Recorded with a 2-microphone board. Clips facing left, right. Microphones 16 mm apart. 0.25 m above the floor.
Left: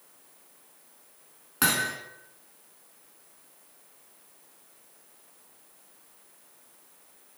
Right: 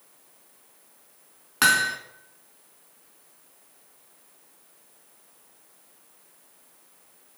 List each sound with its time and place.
1.6 s hammering: 25° right (ahead or behind), 1.2 m